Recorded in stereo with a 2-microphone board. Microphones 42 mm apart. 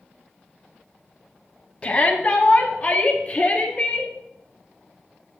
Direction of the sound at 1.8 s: 25° left (ahead or behind).